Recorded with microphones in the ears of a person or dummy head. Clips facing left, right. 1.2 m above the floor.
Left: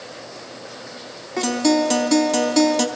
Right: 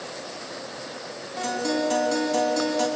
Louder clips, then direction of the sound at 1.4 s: Left 8 dB; 80° left.